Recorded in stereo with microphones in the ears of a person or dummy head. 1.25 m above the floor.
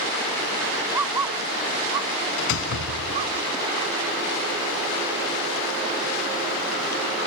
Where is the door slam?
75° left (ahead or behind).